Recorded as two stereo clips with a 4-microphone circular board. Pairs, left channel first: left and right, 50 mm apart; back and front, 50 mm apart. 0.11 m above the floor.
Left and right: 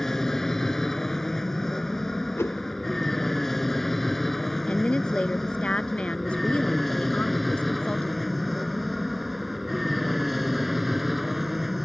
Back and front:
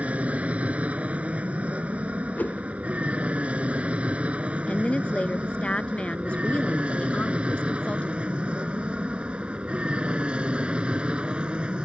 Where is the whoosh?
125° left.